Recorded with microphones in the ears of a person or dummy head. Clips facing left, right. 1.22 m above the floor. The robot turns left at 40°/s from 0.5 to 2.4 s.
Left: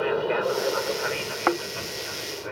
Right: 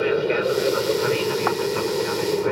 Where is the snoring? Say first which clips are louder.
Even; 30° left (ahead or behind); by 1.6 s 25° left (ahead or behind).